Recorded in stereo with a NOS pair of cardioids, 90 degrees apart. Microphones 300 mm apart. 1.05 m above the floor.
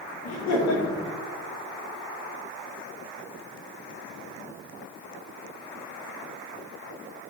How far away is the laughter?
About 3 m.